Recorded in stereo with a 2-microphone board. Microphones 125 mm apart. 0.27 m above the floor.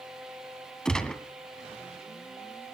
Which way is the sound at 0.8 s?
5° left (ahead or behind).